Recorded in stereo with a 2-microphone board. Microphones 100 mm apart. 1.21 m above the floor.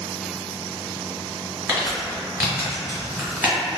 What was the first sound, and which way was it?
Crumpling, 20° right (ahead or behind).